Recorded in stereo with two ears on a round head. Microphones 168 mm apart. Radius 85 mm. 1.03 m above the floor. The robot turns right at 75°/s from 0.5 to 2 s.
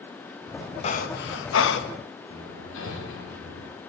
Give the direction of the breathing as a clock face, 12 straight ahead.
11 o'clock.